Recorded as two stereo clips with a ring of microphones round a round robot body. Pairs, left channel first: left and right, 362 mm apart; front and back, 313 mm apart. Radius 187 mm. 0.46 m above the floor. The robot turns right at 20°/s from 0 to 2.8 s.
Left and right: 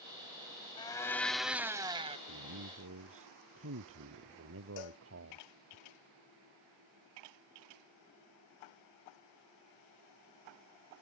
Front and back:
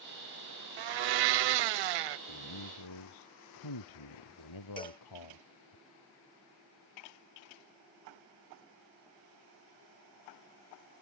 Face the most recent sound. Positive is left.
turn(degrees=75)